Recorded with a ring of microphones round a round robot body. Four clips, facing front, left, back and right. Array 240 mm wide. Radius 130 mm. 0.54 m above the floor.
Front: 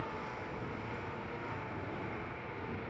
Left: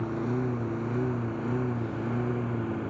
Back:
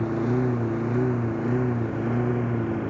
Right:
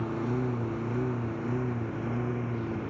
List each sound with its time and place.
0.0 s a lawn mower: straight behind; by 2.9 s 175° left